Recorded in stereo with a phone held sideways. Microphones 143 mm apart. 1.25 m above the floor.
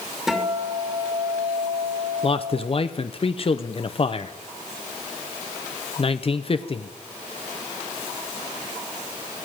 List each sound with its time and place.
0.3 s a guitar: 5° right (ahead or behind), 2.5 m
2.2 s a man speaking: 45° left (ahead or behind), 0.5 m